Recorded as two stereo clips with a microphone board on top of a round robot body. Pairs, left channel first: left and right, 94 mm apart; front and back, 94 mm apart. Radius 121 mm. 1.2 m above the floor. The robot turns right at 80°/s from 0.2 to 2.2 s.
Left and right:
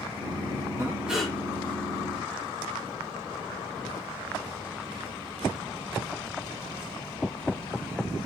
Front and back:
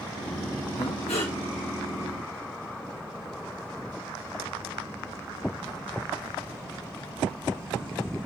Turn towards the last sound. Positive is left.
turn(degrees=80)